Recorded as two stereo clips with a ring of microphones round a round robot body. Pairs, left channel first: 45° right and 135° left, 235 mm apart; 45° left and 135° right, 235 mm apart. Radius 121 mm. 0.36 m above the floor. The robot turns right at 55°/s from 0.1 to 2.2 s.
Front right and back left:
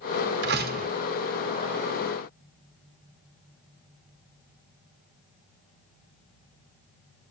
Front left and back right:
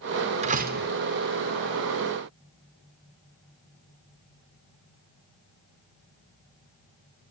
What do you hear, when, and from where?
0.4 s a door slam: 165° left, 1.4 m; by 0.9 s 170° right, 1.4 m